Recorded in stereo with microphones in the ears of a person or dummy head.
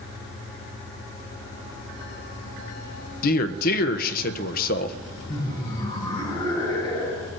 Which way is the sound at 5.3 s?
20° left (ahead or behind).